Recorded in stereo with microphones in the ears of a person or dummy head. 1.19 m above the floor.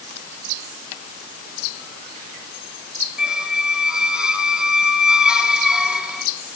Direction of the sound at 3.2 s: Centre (ahead or behind).